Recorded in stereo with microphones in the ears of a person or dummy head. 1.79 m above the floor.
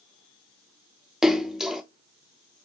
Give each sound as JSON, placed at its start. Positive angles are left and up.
{"t": 1.2, "sound": "a splash", "side_deg": 0, "distance_m": 0.6}